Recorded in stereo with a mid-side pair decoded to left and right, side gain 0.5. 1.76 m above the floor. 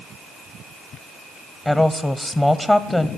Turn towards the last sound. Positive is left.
turn(degrees=15)